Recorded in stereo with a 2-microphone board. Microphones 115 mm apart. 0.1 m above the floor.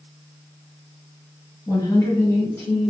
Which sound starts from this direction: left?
A woman speaking, at 1.7 s.